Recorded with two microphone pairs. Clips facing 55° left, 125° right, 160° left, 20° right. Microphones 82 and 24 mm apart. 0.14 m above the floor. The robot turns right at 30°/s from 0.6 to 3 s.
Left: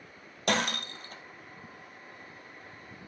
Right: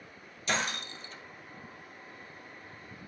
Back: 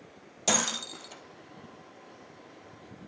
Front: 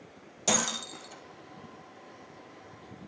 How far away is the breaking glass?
About 2 m.